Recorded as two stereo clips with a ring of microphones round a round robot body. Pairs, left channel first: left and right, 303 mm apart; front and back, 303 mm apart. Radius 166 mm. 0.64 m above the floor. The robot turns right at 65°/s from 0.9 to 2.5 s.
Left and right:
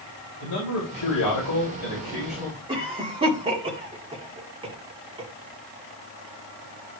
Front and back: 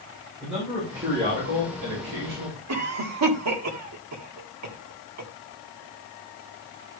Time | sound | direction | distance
0.4 | a man speaking | 90° left | 3.5 m
2.7 | a cough | 160° right | 1.7 m